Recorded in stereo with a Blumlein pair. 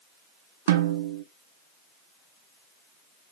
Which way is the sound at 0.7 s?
60° right.